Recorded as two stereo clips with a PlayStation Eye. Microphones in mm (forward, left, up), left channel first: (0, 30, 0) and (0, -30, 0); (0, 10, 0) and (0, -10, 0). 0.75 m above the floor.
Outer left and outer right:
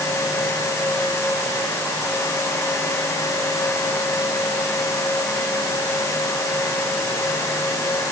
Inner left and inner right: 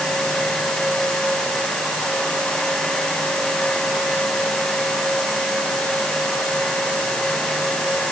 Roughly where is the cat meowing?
I don't hear a cat meowing.